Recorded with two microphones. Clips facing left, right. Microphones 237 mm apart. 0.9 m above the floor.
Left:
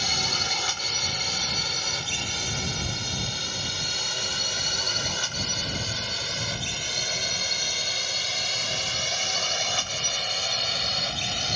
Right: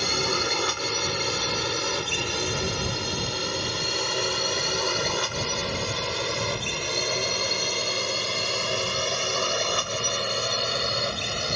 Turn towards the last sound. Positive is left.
turn(degrees=-60)  # may be behind; listen again after turning